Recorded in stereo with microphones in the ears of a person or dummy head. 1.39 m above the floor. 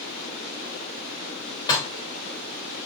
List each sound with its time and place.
1.7 s dishes clattering: 25° left (ahead or behind), 3 m